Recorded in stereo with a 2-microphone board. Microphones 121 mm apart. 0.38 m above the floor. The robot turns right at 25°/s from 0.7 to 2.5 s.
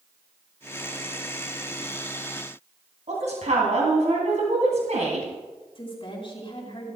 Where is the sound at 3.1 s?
70° right (ahead or behind), 2.5 m.